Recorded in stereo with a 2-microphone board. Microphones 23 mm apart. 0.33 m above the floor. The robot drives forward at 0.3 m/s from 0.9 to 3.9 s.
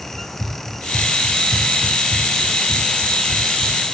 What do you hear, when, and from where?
0.1 s running footsteps: 50° left (ahead or behind), 6.5 m; by 3.8 s 10° left (ahead or behind), 3.5 m